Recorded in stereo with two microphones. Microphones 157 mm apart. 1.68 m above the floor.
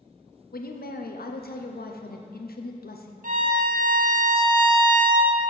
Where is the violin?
60° right (ahead or behind), 0.7 m.